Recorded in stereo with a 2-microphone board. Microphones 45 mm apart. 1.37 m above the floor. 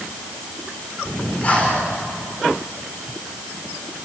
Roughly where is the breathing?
Left.